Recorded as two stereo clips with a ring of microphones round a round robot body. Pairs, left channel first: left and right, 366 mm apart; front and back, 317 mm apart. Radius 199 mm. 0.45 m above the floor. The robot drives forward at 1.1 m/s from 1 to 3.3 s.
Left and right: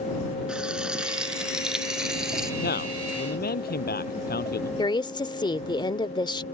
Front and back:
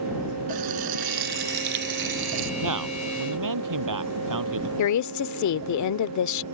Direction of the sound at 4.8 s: 15° left.